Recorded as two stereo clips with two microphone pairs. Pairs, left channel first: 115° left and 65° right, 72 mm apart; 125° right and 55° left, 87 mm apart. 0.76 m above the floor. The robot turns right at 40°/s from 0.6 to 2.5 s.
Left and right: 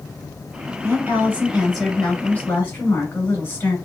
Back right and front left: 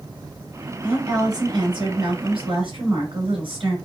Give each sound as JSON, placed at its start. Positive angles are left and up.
{"t": 0.8, "sound": "a woman speaking", "azimuth_deg": -15, "distance_m": 2.0}